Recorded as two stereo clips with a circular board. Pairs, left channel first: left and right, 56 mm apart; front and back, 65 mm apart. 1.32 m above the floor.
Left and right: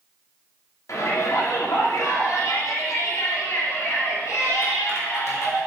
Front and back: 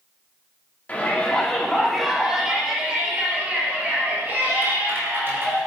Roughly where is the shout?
Ahead left.